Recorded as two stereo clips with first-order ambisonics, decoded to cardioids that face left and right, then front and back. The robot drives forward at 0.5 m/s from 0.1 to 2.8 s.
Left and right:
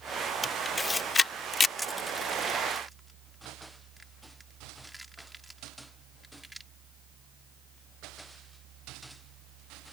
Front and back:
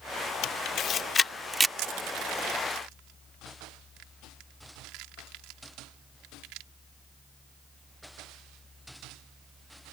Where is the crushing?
Straight behind.